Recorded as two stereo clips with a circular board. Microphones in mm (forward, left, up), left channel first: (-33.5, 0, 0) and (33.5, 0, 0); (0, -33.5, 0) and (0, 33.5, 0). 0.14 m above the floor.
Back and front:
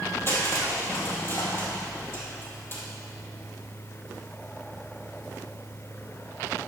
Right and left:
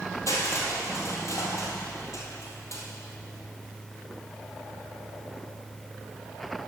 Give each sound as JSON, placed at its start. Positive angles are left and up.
{"t": 0.3, "sound": "crushing", "azimuth_deg": -130, "distance_m": 2.0}